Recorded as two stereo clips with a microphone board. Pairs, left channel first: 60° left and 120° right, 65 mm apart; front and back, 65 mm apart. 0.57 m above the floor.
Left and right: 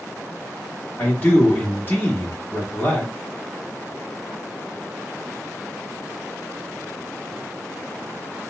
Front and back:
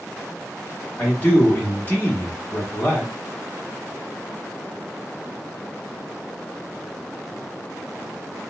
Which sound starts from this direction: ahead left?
A man speaking, at 1.0 s.